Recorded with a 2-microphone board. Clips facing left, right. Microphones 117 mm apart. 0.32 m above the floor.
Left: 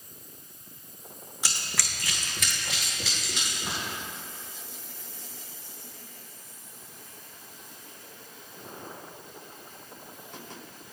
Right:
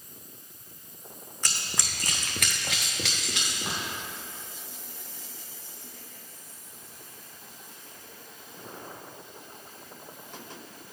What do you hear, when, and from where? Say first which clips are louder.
1.4 s running footsteps: even; 10° left (ahead or behind), 1.0 m; by 3.8 s 85° right, 3 m